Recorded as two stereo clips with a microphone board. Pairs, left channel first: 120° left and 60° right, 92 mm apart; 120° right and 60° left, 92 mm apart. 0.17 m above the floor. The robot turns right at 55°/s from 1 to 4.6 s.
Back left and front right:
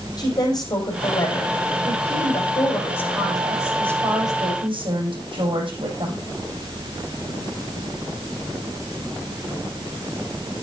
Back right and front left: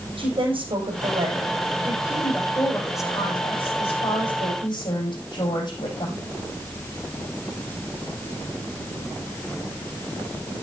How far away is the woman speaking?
About 7.5 m.